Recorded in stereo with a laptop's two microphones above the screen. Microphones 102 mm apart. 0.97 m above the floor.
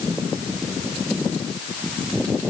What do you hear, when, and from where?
Only background noise.